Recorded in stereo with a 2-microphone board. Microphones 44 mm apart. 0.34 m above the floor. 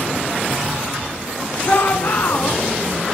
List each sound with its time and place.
1.6 s a shout: 70° left (ahead or behind), 4.5 m